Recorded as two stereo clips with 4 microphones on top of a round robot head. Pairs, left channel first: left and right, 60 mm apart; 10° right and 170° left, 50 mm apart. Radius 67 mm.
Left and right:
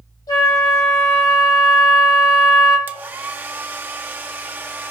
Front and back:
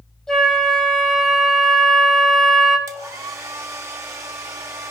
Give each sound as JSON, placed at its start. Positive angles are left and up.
{"t": 0.3, "sound": "a flute", "azimuth_deg": 70, "distance_m": 3.0}
{"t": 2.9, "sound": "a hair dryer", "azimuth_deg": -150, "distance_m": 0.5}